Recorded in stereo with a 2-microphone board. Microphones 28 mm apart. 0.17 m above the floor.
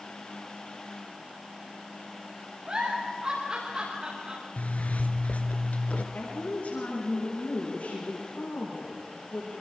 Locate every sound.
2.7 s a giggle: 45° right (ahead or behind), 7.5 m
4.6 s a zipper: 65° left (ahead or behind), 1.6 m
6.1 s a woman speaking: 80° left, 9.5 m